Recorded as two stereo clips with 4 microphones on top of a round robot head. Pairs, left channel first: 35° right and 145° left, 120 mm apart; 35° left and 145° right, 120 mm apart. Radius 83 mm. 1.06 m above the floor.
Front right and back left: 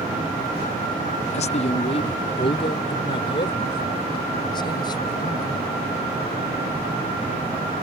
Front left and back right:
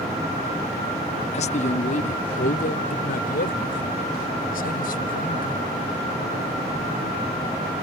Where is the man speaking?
Straight ahead; by 5.7 s 25° left.